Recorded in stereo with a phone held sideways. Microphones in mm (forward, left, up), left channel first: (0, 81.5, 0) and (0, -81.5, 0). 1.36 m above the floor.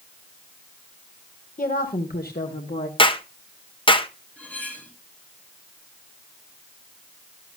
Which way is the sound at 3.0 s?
30° left (ahead or behind).